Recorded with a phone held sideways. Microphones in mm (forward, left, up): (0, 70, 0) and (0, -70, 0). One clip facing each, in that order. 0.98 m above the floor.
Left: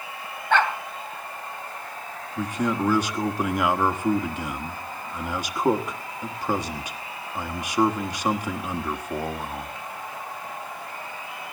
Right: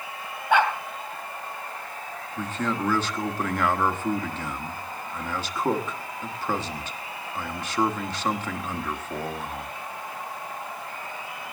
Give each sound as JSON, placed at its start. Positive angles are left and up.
{"t": 0.5, "sound": "a dog barking", "side_deg": -10, "distance_m": 2.5}
{"t": 2.4, "sound": "a man speaking", "side_deg": 15, "distance_m": 1.2}